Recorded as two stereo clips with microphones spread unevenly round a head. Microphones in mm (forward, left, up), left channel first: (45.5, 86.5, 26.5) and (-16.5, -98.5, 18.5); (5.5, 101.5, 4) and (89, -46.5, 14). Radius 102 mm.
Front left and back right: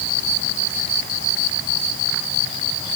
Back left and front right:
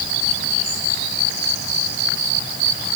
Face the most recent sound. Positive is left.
No sound to turn to.